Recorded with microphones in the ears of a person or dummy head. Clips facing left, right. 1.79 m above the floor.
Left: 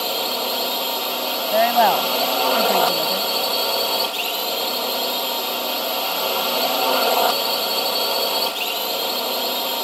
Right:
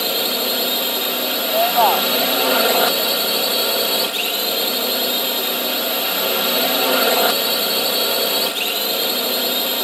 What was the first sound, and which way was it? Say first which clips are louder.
A drone: right 2 dB; 20° right (ahead or behind).